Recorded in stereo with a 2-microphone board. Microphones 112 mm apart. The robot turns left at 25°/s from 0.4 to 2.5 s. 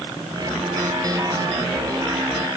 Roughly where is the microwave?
No microwave in this recording.